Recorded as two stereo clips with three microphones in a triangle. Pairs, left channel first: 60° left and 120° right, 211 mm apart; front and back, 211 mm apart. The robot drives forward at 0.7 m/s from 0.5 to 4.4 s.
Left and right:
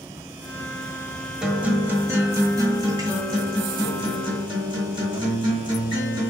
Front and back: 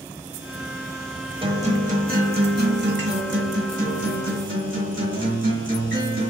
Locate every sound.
1.4 s a guitar: 160° left, 1.2 m; by 6.3 s 175° left, 3 m